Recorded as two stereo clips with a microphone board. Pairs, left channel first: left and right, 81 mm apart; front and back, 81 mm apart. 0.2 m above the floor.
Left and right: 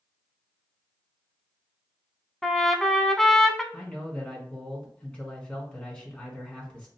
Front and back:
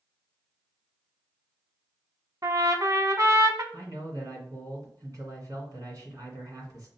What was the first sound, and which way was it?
A trumpet, 175° left.